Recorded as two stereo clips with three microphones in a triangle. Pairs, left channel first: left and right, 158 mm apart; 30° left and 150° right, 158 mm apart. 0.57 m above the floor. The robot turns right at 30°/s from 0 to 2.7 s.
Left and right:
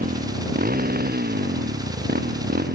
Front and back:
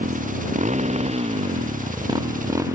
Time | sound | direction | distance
0.0 | a motorcycle | 120° right | ?